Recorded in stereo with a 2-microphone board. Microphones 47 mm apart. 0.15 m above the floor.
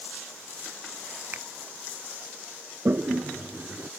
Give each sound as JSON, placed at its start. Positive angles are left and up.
{"t": 1.3, "sound": "a finger snap", "side_deg": -45}
{"t": 2.9, "sound": "a toilet flushing", "side_deg": -50}